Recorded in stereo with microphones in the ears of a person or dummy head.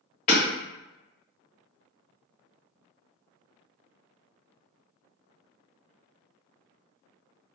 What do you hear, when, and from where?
0.3 s hammering: 40° left (ahead or behind), 1.4 m